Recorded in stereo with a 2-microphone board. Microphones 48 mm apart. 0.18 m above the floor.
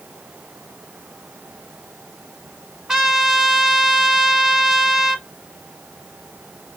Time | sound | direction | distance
2.9 | a trumpet | 15° right (ahead or behind) | 1.5 m